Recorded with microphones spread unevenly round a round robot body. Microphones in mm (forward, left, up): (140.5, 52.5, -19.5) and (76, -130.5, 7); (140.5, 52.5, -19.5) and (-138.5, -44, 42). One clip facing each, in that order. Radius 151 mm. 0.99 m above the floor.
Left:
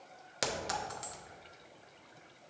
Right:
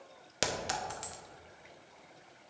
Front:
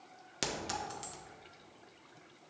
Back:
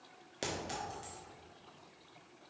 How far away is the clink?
About 0.9 m.